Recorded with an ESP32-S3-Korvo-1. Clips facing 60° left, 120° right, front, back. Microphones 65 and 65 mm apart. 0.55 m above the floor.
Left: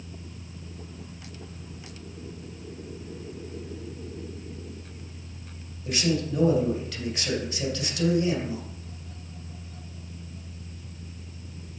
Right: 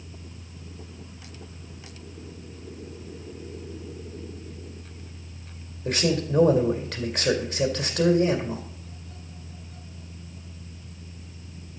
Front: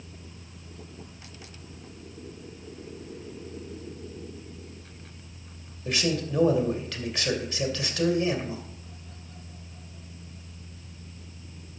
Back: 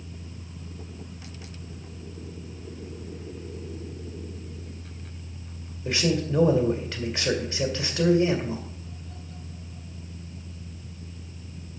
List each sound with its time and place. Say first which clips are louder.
5.8 s a man speaking: right 2 dB, back 2 dB; 120° right, 2 m